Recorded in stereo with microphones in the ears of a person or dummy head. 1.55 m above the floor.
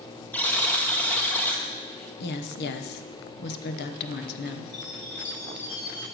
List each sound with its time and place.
0.3 s a buzzer: 5° left (ahead or behind), 1.3 m
2.2 s a woman speaking: 50° left (ahead or behind), 1.0 m
4.7 s a chime: 65° left (ahead or behind), 5.5 m